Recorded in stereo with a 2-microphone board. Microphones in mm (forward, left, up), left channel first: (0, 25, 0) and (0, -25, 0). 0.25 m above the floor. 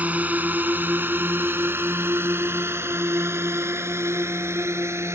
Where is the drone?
35° right (ahead or behind); by 5.2 s 70° right (ahead or behind).